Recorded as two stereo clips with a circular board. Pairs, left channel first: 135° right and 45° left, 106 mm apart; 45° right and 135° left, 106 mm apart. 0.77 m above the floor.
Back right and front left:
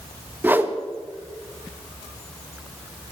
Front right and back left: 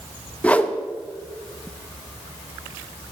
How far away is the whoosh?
About 0.7 m.